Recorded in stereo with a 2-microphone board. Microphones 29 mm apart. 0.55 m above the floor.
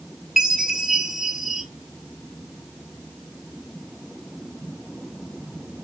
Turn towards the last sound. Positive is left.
turn(degrees=-10)  # may be behind; listen again after turning